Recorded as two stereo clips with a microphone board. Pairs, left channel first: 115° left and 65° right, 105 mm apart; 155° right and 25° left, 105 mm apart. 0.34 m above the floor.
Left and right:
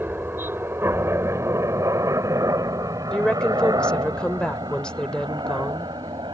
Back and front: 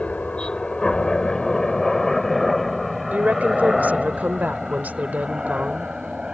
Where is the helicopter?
95° right; by 6.3 s 55° right.